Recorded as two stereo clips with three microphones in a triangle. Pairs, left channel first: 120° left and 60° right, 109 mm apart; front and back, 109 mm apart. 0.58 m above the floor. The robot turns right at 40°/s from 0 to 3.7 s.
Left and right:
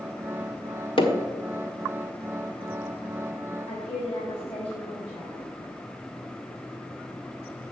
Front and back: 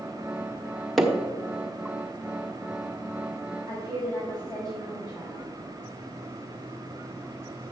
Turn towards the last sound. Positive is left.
turn(degrees=125)